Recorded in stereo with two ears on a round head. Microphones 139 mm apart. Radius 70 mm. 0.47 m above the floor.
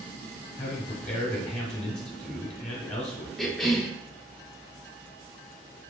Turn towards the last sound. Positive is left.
turn(degrees=0)  # may be behind; listen again after turning